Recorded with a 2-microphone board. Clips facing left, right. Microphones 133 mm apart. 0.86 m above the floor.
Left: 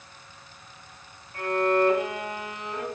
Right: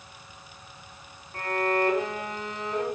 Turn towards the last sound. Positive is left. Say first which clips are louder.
# left 3 dB
turn(degrees=-35)  # may be behind; listen again after turning